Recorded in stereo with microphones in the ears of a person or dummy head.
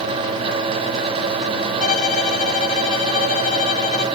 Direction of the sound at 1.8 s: 30° left (ahead or behind).